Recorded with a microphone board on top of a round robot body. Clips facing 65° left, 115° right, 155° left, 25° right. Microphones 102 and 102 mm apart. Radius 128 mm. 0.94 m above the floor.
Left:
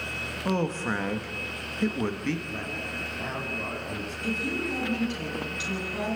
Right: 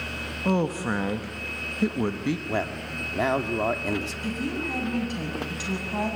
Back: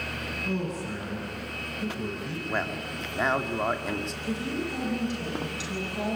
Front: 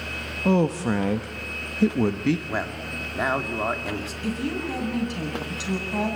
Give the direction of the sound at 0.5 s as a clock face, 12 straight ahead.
1 o'clock.